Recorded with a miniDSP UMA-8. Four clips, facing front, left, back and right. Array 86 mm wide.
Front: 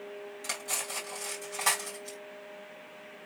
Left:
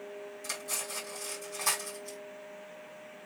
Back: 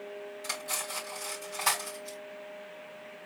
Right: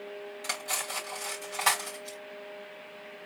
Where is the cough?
No cough in this recording.